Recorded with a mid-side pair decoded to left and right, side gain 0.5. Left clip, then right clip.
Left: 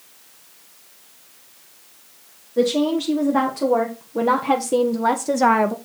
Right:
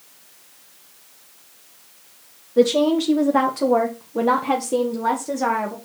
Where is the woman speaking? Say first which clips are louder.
Right 3 dB; 30° right, 2 m; by 5.8 s 50° left, 1.1 m.